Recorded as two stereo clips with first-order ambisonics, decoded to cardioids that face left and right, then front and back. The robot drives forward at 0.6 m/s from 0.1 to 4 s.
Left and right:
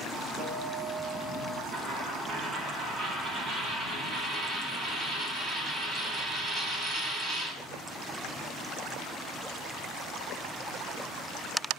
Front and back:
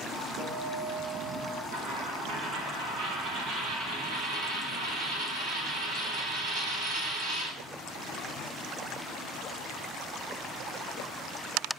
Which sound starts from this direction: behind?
A guitar, at 0.4 s.